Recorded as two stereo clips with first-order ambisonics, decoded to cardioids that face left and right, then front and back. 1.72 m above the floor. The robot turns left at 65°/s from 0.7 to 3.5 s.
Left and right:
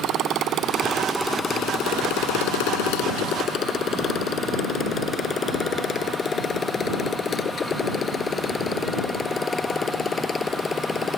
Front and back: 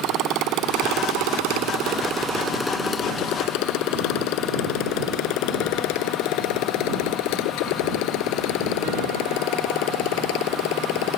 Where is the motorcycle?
140° right; by 11.2 s 15° left.